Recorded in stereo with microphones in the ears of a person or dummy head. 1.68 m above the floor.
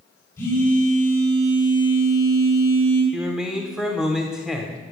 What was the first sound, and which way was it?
A phone buzzing, 15° left (ahead or behind).